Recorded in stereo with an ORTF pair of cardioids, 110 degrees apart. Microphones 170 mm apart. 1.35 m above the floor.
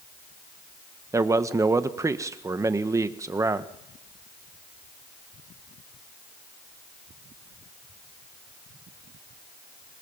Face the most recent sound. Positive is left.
turn(degrees=-20)